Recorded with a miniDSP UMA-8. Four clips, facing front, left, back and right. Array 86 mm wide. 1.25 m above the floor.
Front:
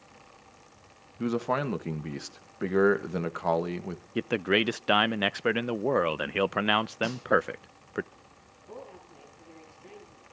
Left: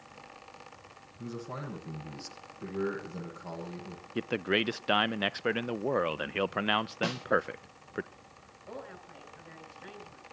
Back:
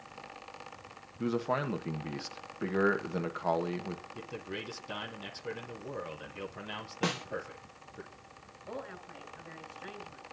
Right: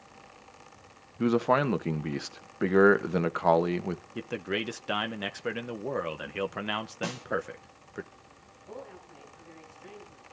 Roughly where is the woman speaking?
Behind left.